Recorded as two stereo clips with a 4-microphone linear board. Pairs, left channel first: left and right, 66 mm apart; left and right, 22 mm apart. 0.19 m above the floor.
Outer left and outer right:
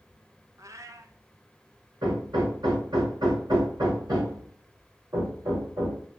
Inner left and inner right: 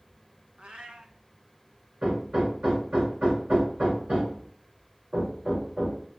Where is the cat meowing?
55° right (ahead or behind), 0.8 m.